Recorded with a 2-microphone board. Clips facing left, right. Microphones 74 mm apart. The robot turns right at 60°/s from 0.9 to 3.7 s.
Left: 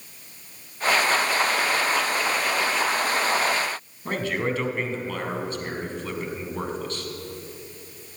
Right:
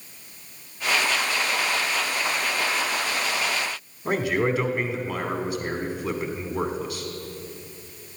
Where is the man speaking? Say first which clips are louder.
Right 3 dB; 15° right (ahead or behind), 1.2 m.